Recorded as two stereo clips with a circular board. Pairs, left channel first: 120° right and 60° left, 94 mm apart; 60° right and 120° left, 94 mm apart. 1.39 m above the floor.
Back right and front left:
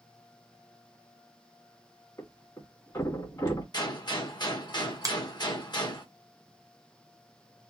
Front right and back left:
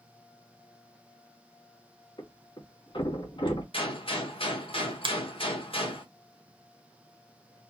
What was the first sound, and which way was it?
A thud, 70° right.